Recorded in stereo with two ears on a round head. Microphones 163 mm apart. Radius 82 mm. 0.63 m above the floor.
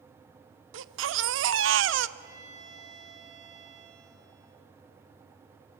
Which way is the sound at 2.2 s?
70° right (ahead or behind).